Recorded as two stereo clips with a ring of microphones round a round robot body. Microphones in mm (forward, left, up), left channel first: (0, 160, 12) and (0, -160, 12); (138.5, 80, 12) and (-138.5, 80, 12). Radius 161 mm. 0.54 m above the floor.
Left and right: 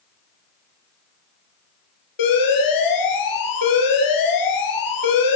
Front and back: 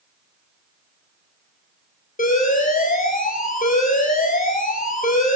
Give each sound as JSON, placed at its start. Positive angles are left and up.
{"t": 2.2, "sound": "an alarm", "azimuth_deg": 60, "distance_m": 8.5}